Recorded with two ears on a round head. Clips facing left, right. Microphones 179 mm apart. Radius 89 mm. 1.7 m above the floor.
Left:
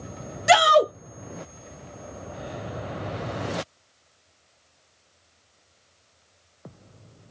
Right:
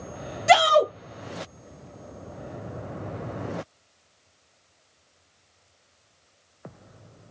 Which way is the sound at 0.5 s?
15° left (ahead or behind).